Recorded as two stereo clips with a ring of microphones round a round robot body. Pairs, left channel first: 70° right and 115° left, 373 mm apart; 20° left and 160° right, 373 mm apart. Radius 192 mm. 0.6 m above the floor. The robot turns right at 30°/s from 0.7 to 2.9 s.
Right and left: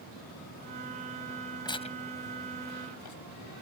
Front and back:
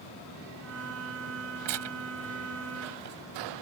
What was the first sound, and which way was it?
Tearing paper, 145° right.